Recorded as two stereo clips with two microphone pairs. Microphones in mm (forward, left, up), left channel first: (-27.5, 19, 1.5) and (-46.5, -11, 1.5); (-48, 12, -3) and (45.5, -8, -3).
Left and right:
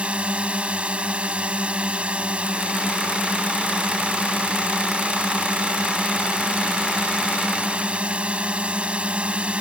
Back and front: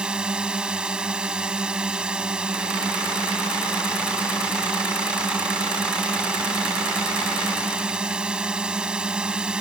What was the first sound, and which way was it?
A drone, 85° right.